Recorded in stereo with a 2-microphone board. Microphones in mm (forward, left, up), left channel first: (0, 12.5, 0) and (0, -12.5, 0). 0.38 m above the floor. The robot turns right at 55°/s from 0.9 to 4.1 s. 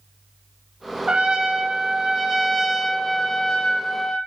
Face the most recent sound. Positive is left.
turn(degrees=70)